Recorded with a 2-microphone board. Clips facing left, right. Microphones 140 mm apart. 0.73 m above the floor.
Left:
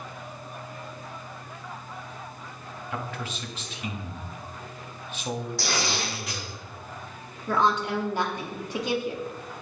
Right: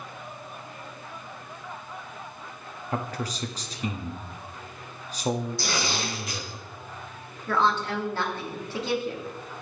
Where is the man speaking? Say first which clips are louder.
Right 4 dB; 35° right (ahead or behind), 0.7 m.